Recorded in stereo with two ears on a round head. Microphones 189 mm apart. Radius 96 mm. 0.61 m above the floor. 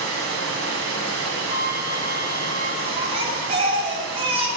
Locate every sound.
0.0 s running water: 70° right (ahead or behind), 2.0 m
1.5 s a flute: 40° right (ahead or behind), 2.5 m
2.9 s a baby crying: 30° right (ahead or behind), 2.0 m